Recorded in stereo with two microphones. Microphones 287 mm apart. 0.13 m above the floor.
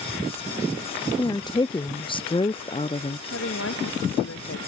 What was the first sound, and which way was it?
A woman speaking, 15° left (ahead or behind).